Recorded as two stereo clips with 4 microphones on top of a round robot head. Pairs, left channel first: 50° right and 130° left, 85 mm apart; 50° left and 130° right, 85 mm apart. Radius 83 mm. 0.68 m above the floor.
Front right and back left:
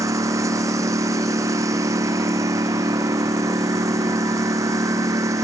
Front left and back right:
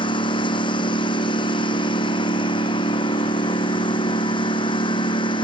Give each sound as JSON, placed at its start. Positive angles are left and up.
{"t": 0.0, "sound": "a lawn mower", "azimuth_deg": 75}